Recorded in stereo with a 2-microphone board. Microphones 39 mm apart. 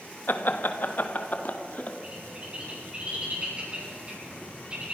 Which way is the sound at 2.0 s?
25° right (ahead or behind).